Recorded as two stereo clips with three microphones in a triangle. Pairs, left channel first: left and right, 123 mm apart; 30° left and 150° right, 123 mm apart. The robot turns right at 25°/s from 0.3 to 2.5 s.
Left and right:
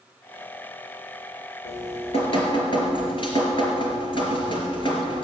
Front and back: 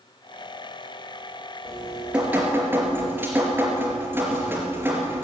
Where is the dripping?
115° left, 3.5 m; by 5.2 s 140° left, 3.5 m.